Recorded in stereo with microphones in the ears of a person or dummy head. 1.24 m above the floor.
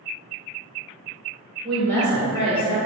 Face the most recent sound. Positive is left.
turn(degrees=25)  # may be behind; listen again after turning